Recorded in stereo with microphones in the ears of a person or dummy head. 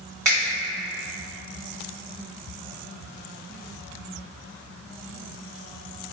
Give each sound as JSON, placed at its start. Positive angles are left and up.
{"t": 0.2, "sound": "a finger snap", "side_deg": -10, "distance_m": 1.4}